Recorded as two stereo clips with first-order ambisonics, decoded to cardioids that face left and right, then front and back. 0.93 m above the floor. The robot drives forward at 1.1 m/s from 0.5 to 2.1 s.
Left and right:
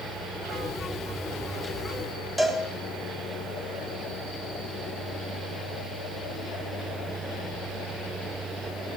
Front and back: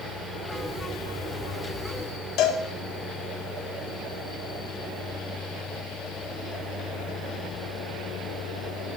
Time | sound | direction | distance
2.4 | a cowbell | 5° right | 1.2 m